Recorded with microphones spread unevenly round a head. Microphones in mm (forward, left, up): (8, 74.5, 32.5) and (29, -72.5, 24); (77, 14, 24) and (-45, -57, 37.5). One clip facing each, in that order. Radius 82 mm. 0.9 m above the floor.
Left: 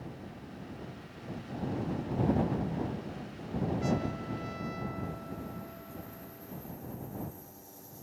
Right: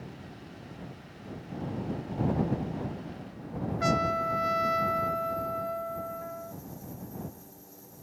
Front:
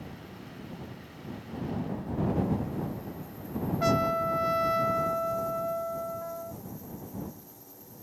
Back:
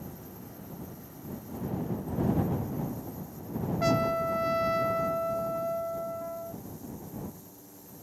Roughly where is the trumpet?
Ahead right.